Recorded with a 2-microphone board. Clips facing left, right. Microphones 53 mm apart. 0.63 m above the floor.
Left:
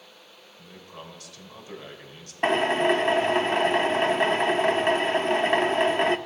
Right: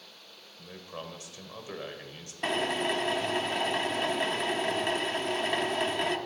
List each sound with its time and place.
0.6 s a man speaking: 25° right (ahead or behind), 2.5 m
2.4 s a drill: 35° left (ahead or behind), 0.8 m